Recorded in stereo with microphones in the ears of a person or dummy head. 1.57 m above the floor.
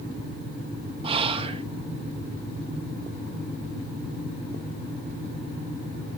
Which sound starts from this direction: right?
Whispering, at 1.0 s.